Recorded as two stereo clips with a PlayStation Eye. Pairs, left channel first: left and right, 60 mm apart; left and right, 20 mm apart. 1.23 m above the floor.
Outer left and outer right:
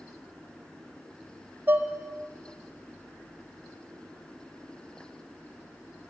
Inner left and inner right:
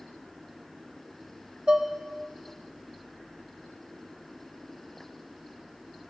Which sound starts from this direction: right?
Dishes clattering, at 1.7 s.